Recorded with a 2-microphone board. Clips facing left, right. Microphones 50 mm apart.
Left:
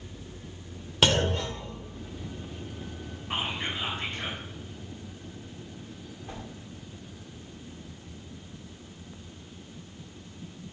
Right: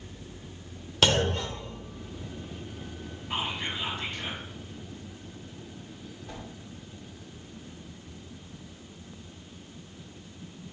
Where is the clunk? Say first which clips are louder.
Even; 10° left (ahead or behind), 1.0 m.